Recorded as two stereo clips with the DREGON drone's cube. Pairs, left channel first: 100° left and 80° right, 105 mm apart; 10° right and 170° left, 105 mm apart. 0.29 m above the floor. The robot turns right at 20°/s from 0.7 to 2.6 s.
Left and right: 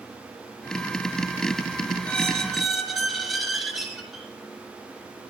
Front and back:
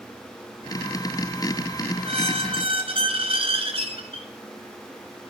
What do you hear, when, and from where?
2.0 s a squeak: straight behind, 3.5 m; by 4.3 s 170° right, 3.5 m